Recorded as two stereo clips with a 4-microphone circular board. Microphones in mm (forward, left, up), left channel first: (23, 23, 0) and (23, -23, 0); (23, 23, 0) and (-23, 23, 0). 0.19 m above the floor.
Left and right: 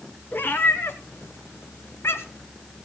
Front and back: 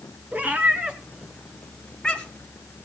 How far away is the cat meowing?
About 1.7 m.